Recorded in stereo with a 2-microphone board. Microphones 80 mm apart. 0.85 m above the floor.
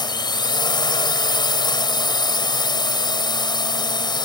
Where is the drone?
60° left (ahead or behind).